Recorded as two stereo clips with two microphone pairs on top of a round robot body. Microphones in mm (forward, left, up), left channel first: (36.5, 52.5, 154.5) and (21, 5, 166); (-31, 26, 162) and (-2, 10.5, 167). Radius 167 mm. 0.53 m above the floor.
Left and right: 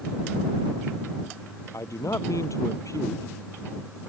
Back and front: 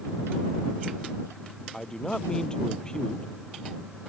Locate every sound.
1.7 s a man speaking: 80° left